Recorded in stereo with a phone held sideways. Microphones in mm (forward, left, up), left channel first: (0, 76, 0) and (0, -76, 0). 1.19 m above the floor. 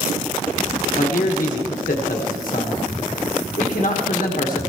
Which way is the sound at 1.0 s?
60° left (ahead or behind).